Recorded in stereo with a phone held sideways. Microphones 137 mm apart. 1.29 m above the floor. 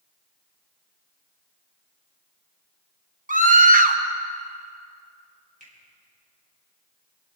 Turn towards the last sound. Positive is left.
turn(degrees=-80)